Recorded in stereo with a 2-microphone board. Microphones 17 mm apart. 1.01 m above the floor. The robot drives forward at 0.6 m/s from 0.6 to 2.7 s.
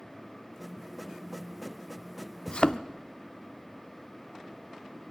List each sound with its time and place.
2.5 s a thud: 55° left (ahead or behind), 0.8 m